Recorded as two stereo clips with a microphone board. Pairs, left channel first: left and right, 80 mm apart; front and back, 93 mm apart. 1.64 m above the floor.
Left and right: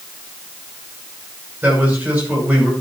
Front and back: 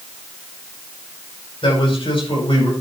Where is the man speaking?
25° right, 5.5 m.